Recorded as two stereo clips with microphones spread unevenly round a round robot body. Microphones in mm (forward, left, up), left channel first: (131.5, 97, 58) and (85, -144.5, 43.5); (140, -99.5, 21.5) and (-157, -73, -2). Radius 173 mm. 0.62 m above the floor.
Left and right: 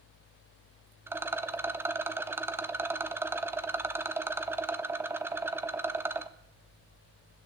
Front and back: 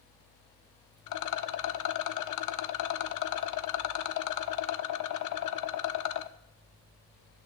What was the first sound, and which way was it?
A rattle, 20° right.